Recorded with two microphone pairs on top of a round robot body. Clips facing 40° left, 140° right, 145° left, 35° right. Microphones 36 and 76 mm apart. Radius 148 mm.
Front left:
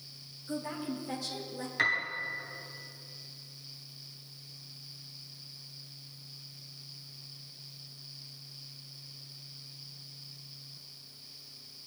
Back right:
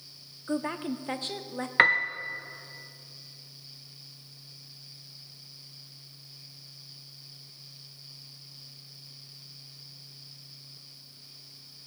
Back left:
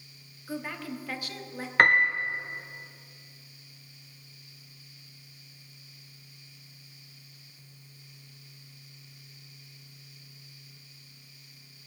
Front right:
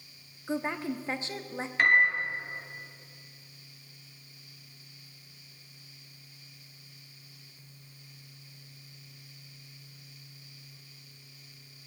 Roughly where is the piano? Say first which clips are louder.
Back right 8 dB, back left 2 dB; behind.